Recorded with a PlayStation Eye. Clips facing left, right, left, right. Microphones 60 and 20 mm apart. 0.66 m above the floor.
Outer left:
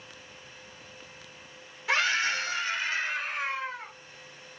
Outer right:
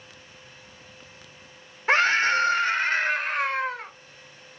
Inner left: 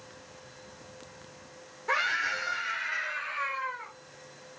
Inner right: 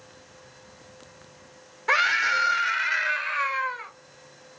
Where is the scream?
40° right (ahead or behind), 2.5 m; by 3.9 s 60° right (ahead or behind), 3.5 m.